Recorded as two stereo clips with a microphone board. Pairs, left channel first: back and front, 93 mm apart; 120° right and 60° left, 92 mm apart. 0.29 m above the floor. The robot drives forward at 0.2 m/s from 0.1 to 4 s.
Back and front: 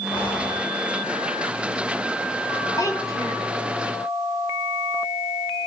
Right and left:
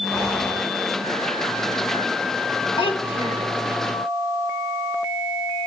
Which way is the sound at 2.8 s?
135° right.